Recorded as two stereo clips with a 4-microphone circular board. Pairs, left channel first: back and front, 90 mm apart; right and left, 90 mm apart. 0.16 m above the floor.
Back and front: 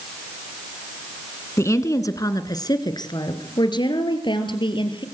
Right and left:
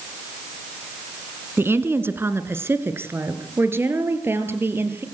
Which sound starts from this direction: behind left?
A woman speaking, at 1.6 s.